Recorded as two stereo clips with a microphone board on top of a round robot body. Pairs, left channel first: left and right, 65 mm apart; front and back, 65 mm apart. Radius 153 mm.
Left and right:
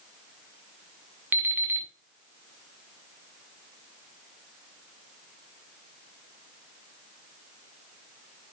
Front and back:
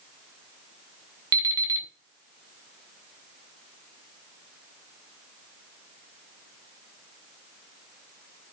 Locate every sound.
1.3 s an alarm clock: 155° right, 1.7 m